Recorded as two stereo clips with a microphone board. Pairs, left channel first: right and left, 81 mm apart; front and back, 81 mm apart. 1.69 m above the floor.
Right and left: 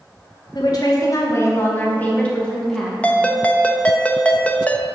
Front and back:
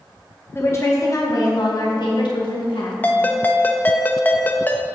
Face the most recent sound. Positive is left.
turn(degrees=-40)